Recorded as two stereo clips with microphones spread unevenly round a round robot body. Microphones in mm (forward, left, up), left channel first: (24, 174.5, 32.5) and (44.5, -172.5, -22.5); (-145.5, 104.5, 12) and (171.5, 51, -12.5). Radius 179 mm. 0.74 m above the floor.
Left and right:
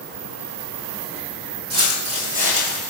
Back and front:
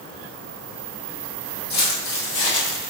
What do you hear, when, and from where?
1.7 s footsteps: 155° right, 1.7 m; by 2.9 s 170° left, 1.3 m